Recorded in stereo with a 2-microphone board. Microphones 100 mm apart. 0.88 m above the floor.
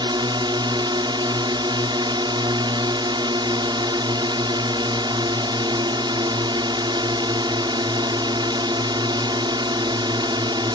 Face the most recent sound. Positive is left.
turn(degrees=-50)  # may be behind; listen again after turning